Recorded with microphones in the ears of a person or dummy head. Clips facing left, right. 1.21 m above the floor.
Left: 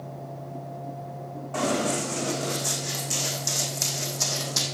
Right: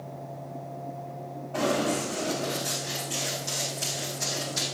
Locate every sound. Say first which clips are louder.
1.5 s running footsteps: even; 80° left, 5.5 m; by 4.7 s 70° left (ahead or behind), 4 m